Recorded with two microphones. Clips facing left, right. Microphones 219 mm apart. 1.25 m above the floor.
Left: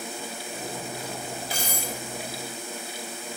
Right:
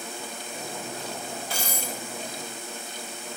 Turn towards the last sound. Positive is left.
turn(degrees=15)  # may be behind; listen again after turning